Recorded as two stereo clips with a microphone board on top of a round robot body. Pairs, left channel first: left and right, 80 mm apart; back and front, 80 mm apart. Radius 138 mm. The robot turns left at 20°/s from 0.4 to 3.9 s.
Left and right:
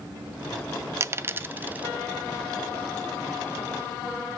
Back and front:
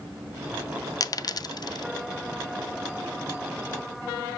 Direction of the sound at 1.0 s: 145° right.